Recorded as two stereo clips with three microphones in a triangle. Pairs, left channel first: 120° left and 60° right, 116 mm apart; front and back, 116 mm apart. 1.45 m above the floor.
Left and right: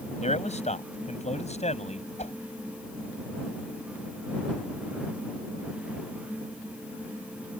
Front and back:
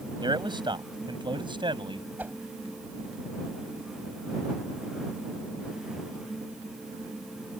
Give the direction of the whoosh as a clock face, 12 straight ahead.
9 o'clock.